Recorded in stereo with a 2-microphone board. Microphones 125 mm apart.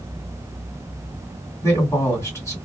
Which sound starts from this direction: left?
A man speaking, at 1.6 s.